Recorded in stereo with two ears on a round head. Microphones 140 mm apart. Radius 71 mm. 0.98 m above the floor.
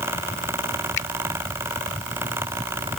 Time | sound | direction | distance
1.0 | a finger snap | 80° left | ?